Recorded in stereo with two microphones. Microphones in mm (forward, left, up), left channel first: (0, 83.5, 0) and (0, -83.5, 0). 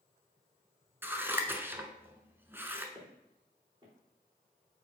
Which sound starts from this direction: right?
Footsteps, at 3.0 s.